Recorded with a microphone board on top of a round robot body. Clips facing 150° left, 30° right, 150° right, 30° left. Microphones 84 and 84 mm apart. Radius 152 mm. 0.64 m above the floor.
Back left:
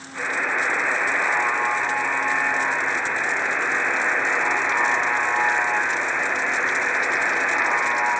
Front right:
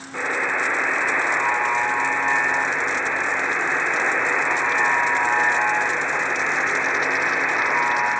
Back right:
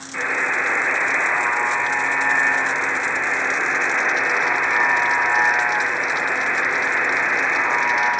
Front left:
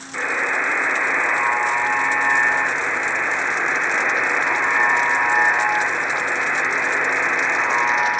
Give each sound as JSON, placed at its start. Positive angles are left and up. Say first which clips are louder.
{"t": 0.1, "sound": "a buzzer", "louder": "front right 1 dB, even", "azimuth_deg": -50, "distance_m": 2.5}